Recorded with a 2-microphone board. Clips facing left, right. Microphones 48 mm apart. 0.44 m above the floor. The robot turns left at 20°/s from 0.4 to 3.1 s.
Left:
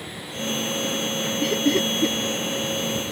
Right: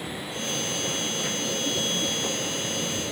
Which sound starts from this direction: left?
Laughter, at 1.4 s.